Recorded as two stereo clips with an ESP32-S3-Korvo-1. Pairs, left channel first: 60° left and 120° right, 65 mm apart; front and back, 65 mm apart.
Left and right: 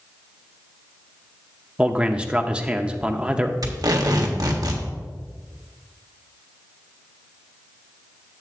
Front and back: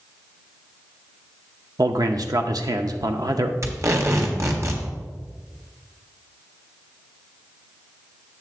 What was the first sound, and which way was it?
A man speaking, 165° left.